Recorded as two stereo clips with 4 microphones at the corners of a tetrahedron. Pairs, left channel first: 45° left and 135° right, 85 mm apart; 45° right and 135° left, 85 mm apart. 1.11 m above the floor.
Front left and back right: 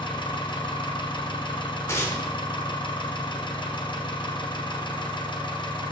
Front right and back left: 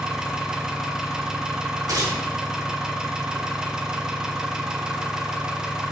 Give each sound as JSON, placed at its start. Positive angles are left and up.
{"t": 0.0, "sound": "an engine running", "azimuth_deg": 55, "distance_m": 0.7}
{"t": 1.9, "sound": "tearing paper", "azimuth_deg": 100, "distance_m": 1.3}